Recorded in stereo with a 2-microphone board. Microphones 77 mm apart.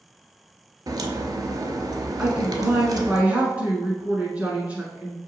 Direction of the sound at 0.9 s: 55° right (ahead or behind).